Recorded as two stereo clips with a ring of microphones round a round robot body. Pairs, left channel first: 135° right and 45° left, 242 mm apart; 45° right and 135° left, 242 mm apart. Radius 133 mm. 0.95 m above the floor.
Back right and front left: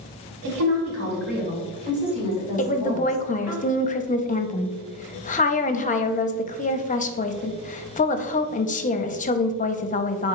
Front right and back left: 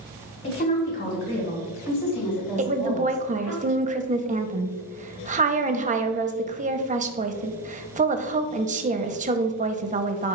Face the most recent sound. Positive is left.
turn(degrees=180)